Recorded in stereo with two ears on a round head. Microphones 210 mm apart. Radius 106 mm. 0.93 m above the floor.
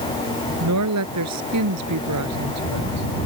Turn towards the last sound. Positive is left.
turn(degrees=-85)